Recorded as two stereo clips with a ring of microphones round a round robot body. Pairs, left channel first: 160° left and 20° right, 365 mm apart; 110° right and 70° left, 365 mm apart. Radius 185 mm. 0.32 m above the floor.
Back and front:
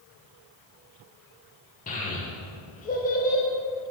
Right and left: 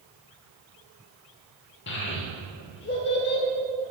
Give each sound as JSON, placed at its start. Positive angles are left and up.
{"t": 1.9, "sound": "a child speaking", "azimuth_deg": -150, "distance_m": 0.8}